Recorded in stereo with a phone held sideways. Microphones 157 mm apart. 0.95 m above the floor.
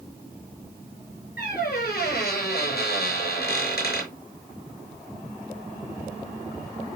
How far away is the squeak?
About 6.5 m.